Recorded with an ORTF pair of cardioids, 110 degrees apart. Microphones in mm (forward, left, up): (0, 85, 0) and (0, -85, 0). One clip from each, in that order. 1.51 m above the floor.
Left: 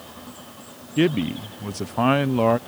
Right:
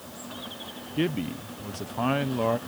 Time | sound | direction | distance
1.0 | a man speaking | 35° left | ?